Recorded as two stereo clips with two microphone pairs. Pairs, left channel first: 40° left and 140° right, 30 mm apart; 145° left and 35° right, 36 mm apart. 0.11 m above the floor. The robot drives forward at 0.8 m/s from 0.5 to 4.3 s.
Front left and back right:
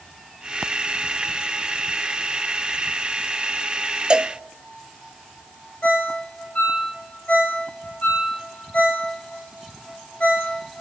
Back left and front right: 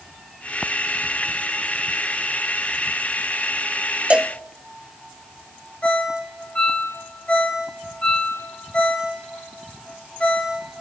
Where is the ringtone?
85° left, 5.5 m.